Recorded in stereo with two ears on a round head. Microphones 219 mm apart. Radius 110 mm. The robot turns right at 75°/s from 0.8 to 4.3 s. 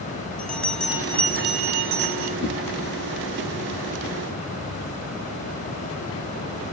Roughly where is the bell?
Behind.